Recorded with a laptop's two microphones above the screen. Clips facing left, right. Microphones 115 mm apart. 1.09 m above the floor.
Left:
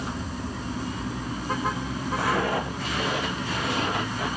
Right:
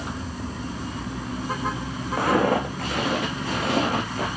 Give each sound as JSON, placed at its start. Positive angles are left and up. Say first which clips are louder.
{"t": 2.2, "sound": "footsteps", "louder": "right 6 dB", "side_deg": -60, "distance_m": 3.0}